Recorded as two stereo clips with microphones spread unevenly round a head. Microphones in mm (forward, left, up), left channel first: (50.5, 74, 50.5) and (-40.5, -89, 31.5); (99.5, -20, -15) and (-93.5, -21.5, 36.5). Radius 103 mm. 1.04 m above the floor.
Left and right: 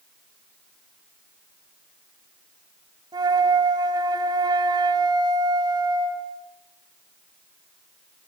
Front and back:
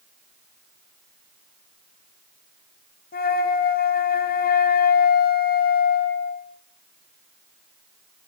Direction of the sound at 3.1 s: 50° right.